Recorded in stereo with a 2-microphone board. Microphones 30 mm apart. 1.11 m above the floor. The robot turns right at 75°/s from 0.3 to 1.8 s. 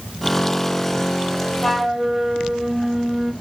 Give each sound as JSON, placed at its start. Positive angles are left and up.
{"t": 1.6, "sound": "a flute", "side_deg": 15, "distance_m": 1.4}